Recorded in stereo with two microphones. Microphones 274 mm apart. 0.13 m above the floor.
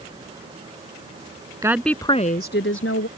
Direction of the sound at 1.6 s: 10° right (ahead or behind).